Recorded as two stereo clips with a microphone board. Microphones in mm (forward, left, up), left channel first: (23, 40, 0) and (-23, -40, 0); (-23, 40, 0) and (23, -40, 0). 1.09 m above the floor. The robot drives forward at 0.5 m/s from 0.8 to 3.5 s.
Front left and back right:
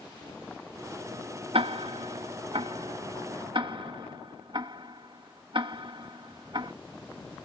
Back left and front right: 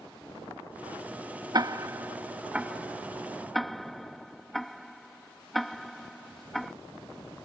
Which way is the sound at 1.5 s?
105° right.